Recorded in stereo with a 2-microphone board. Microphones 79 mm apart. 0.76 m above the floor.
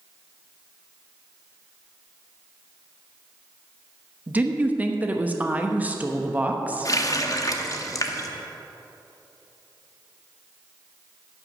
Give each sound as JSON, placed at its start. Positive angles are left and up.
{"t": 4.3, "sound": "a woman speaking", "side_deg": -20, "distance_m": 0.9}
{"t": 6.8, "sound": "a running tap", "side_deg": 45, "distance_m": 0.8}